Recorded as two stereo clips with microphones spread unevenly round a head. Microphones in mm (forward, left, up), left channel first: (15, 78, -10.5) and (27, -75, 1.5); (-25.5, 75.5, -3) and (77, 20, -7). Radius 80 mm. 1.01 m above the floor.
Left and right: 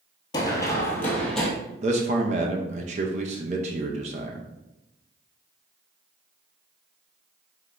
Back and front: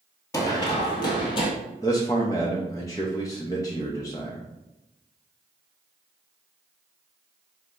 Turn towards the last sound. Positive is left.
turn(degrees=-135)